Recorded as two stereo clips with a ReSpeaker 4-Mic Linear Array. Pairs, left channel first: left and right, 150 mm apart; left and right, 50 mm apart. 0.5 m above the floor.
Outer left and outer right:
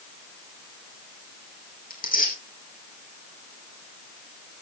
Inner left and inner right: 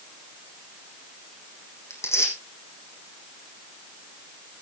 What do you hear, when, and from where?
1.9 s tearing paper: 70° left (ahead or behind), 4 m